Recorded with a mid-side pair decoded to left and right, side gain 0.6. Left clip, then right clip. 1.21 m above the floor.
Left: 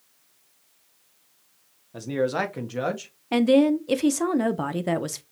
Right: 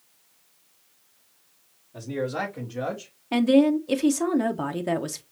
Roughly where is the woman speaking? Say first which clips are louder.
Left 1 dB; ahead.